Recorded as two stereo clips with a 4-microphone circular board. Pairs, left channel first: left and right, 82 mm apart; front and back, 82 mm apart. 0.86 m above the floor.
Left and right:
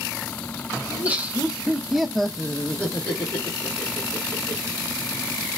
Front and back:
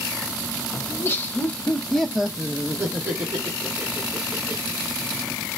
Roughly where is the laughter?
Ahead right.